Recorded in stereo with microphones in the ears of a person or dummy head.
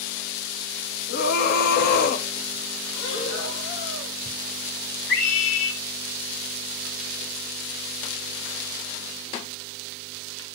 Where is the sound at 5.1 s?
80° left, 8.5 m.